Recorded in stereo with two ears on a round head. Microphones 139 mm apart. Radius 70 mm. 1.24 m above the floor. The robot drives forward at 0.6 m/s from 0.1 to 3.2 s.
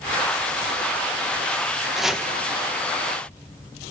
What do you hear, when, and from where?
1.9 s chopping: centre (ahead or behind), 1.4 m